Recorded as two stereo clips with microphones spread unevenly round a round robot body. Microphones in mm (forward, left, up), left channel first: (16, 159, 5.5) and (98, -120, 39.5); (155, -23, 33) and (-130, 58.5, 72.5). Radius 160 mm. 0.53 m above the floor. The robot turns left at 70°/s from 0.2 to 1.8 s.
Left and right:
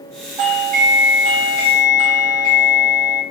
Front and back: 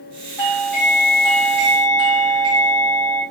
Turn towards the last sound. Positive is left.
turn(degrees=-125)